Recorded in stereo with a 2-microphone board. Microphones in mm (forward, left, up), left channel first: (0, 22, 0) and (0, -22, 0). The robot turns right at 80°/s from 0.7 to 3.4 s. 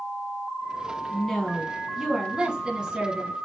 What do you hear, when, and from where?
1.1 s a woman speaking: 15° left (ahead or behind), 1.1 m; by 3.3 s 15° right (ahead or behind), 1.1 m